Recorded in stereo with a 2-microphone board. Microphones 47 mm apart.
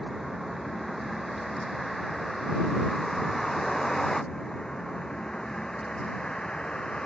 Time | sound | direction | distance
0.0 | a vehicle | 5° right (ahead or behind) | ?